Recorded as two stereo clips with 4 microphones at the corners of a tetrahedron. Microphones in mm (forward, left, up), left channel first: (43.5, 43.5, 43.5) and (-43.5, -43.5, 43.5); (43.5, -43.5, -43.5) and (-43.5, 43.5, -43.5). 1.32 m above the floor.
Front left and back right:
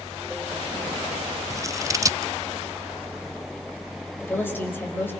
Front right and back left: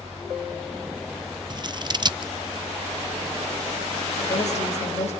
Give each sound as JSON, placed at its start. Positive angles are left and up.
{"t": 1.5, "sound": "scissors", "azimuth_deg": 170, "distance_m": 0.6}
{"t": 4.2, "sound": "a woman speaking", "azimuth_deg": -25, "distance_m": 5.5}